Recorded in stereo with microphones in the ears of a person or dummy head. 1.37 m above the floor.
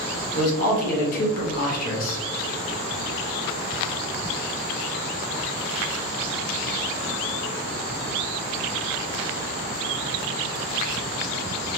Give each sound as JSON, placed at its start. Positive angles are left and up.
{"t": 0.3, "sound": "a man speaking", "side_deg": 50, "distance_m": 1.3}